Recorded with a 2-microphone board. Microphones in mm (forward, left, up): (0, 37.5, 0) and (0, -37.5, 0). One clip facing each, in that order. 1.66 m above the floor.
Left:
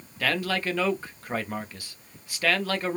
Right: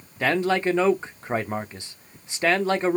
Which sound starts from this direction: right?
A man speaking, at 0.2 s.